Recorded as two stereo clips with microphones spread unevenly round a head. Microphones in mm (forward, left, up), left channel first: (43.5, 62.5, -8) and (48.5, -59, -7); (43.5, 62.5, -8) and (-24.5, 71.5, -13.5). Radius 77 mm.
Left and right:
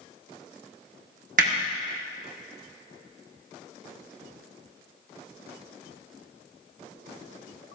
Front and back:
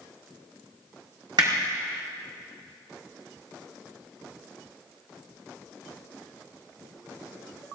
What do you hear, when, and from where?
1.4 s hammering: 125° right, 1.6 m